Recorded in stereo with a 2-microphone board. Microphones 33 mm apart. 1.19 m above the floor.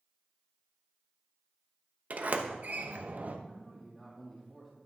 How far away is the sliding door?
About 0.9 m.